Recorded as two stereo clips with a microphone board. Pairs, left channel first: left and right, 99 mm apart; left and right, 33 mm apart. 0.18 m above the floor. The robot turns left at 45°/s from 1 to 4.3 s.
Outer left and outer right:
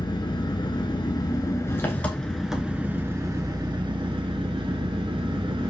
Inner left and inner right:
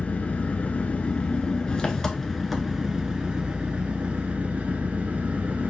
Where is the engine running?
65° left, 1.1 m; by 5.7 s 85° right, 1.1 m.